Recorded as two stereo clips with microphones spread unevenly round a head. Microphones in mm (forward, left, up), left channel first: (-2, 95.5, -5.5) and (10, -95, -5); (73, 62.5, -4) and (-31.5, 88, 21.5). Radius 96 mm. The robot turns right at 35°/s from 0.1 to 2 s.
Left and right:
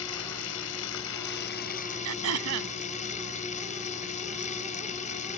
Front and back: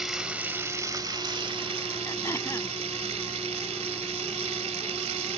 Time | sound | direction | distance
0.0 | running water | 80° left | ?
2.0 | throat clearing | 95° right | ?